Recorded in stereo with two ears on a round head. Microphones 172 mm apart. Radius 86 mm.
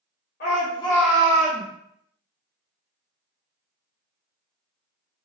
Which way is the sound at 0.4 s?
55° left (ahead or behind).